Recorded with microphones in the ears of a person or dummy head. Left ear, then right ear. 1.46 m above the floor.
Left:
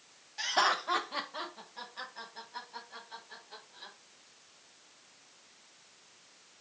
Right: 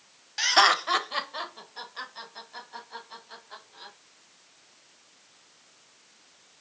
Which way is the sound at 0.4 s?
55° right (ahead or behind).